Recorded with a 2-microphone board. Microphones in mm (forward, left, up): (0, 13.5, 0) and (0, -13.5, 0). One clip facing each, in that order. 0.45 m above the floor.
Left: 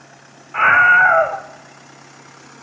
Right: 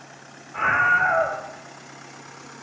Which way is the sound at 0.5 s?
60° left (ahead or behind).